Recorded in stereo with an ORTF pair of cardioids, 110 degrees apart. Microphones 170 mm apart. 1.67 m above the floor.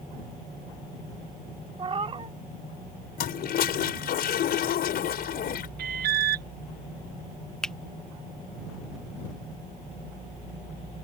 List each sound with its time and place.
1.8 s a cat meowing: 30° right
3.2 s a toilet flushing: 60° left
5.8 s an alarm: 60° right
7.6 s a finger snap: 5° left